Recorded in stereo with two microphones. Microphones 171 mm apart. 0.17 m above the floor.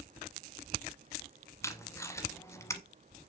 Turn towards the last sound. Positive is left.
turn(degrees=15)  # may be behind; listen again after turning